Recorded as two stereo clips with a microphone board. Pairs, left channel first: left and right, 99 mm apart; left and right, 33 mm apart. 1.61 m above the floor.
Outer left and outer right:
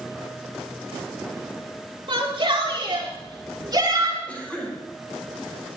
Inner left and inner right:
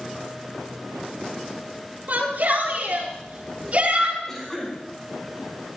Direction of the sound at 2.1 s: 60° right (ahead or behind).